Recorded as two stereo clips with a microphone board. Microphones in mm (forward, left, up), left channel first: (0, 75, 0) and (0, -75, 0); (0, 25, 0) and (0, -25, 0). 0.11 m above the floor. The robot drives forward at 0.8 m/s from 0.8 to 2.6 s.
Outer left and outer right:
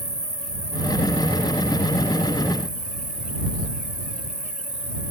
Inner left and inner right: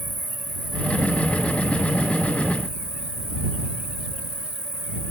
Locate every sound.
0.0 s an insect: 50° left (ahead or behind); by 5.1 s 55° left (ahead or behind)